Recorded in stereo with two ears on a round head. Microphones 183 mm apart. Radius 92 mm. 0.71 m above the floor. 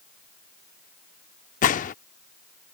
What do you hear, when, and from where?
1.6 s a gunshot: 40° left (ahead or behind)